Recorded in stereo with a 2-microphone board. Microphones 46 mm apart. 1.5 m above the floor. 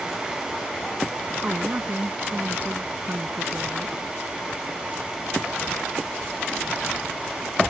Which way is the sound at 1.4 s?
35° right (ahead or behind).